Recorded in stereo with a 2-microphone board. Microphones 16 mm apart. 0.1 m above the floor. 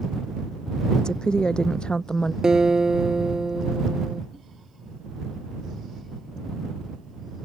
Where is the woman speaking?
55° left (ahead or behind); by 2.3 s 65° left (ahead or behind).